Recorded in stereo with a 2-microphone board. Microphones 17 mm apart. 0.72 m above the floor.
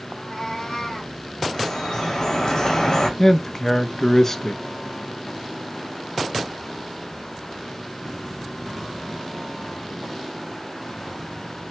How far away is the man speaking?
About 0.5 m.